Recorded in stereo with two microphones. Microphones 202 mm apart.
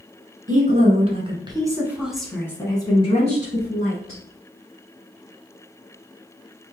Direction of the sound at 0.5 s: 40° right (ahead or behind).